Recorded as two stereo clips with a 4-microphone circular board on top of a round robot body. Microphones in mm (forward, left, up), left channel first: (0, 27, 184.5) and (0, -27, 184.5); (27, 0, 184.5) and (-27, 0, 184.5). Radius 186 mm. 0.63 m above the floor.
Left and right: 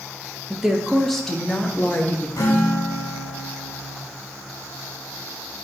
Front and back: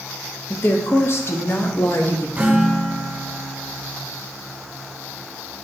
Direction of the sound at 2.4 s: 115° left.